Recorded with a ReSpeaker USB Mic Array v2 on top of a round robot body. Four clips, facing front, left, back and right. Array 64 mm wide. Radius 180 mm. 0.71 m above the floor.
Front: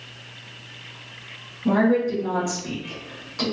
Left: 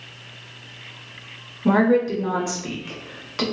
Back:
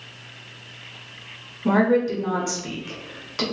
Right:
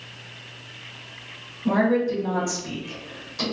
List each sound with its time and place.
1.6 s a woman speaking: 120° left, 1.5 m